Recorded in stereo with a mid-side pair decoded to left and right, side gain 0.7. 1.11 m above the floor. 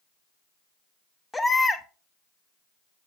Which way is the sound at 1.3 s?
15° left.